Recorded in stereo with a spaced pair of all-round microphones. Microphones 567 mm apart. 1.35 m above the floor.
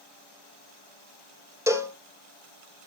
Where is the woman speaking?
I don't hear a woman speaking.